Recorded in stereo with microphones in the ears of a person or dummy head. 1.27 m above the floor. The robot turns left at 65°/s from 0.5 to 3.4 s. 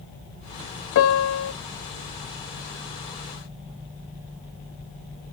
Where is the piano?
115° left, 0.9 m; by 1.5 s 75° left, 0.9 m.